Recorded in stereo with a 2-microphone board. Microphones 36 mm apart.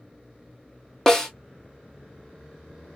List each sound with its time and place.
1.1 s a snare drum: 15° left (ahead or behind), 0.8 m